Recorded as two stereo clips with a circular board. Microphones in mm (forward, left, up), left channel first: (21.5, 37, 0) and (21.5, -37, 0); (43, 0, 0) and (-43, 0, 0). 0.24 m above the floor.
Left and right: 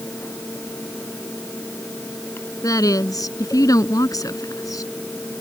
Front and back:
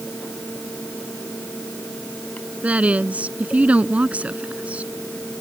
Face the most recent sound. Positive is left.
turn(degrees=110)